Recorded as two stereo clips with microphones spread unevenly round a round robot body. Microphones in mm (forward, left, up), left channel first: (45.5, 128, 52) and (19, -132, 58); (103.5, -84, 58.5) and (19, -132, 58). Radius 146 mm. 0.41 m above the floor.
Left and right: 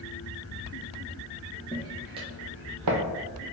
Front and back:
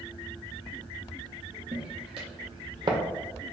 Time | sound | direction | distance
1.7 | footsteps | 165° left | 0.9 m